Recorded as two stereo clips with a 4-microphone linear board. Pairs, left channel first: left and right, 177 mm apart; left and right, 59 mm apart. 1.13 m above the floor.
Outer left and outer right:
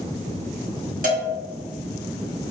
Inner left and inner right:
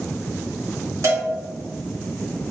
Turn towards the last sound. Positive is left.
turn(degrees=-55)  # may be behind; listen again after turning